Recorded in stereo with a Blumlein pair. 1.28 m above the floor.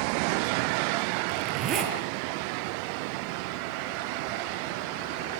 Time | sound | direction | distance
1.3 | a zipper | 30° right | 6.5 m